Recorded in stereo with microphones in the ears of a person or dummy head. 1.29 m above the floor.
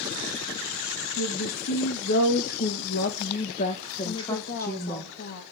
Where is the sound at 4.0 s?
60° left (ahead or behind), 1.7 m.